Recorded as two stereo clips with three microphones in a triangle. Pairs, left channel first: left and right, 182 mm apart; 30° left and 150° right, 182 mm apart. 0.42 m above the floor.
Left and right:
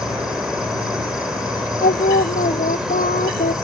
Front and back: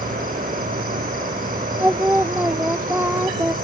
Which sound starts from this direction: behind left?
Singing, at 1.8 s.